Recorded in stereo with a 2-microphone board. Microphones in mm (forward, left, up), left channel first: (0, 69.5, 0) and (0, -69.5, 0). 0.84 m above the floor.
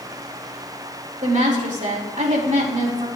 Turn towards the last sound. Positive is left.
turn(degrees=-65)  # may be behind; listen again after turning